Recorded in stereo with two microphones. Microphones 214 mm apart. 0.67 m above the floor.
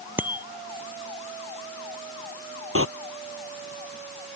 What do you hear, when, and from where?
0.2 s a bicycle bell: 10° right (ahead or behind)
2.8 s a door slam: 80° right